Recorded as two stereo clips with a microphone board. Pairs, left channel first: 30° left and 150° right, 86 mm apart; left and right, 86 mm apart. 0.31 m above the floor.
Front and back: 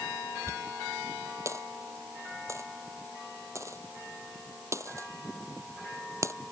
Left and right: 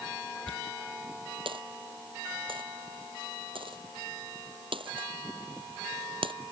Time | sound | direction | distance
0.5 | a dropped coin | 95° right | ?